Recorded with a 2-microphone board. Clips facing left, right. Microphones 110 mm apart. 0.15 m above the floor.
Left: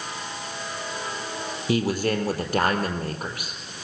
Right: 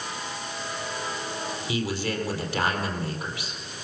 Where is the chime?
No chime in this recording.